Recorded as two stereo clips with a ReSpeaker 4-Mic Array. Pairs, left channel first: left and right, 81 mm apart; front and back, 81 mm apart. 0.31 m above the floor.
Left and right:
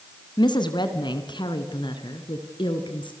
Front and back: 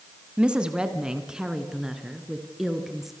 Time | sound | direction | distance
0.4 | a woman speaking | 100° left | 2.5 m